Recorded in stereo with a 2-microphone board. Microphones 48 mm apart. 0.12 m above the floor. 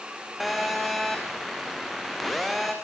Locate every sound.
0.4 s a phone buzzing: centre (ahead or behind), 3.5 m